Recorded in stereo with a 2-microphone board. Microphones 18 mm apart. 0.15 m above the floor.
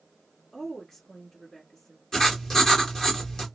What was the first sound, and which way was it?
A woman speaking, 35° left (ahead or behind).